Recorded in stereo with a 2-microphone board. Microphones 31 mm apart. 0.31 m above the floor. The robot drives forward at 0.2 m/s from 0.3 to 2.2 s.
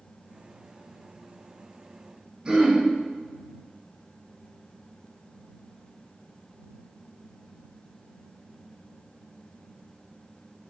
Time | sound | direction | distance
2.5 | throat clearing | 30° right (ahead or behind) | 0.9 m